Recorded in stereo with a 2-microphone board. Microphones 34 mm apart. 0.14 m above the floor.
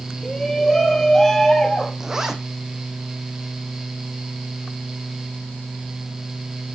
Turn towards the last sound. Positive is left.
turn(degrees=-10)  # may be behind; listen again after turning